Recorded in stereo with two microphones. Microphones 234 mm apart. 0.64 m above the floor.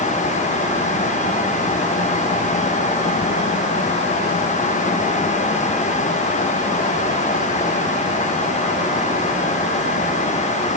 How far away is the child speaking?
No child speaking in this recording.